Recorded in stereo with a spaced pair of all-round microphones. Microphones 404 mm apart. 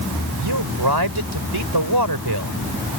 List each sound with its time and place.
0.4 s a man speaking: 70° right (ahead or behind)